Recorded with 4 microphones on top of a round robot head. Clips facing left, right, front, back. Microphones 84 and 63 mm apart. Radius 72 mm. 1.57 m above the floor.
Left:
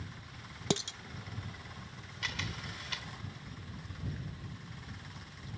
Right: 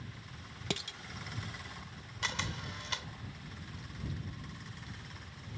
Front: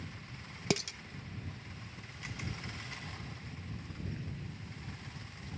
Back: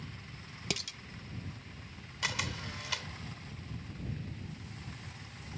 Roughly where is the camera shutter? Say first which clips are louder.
Right 2 dB, back 7 dB; behind right.